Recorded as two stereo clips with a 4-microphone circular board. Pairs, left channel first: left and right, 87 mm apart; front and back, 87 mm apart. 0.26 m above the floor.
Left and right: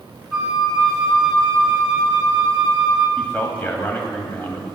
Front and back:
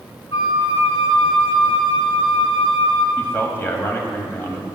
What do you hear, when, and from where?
0.3 s a flute: 10° right, 1.9 m
3.2 s a man speaking: 35° left, 1.4 m